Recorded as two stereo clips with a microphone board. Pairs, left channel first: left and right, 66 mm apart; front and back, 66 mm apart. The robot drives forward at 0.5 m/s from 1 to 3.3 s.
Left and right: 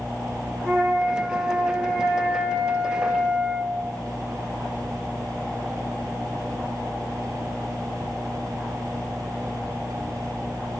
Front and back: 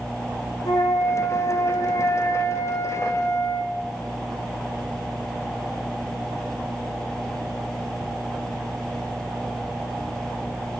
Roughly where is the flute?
Ahead.